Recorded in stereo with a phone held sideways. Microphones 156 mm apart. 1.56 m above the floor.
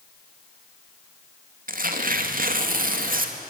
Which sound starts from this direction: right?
Tearing paper, at 1.7 s.